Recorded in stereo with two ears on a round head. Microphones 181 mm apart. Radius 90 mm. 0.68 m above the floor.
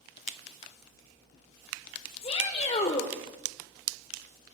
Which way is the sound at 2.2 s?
30° left (ahead or behind).